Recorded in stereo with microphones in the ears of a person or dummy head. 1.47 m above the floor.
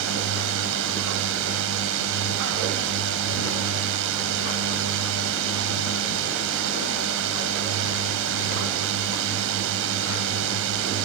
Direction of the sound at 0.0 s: 70° right (ahead or behind).